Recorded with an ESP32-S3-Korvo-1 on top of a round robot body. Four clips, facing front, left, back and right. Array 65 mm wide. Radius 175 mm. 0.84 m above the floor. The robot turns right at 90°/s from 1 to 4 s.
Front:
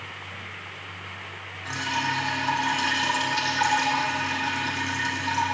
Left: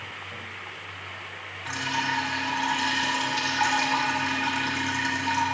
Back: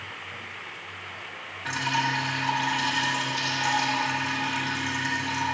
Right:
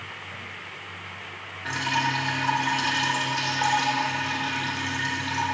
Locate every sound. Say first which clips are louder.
1.6 s dripping: right 2 dB, back 1 dB; 115° right, 3 m; by 5.4 s 95° left, 3 m